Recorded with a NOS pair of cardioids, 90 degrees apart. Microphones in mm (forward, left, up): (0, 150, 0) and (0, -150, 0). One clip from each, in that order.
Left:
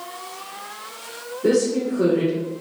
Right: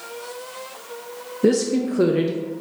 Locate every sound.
1.4 s a woman speaking: 55° right, 0.5 m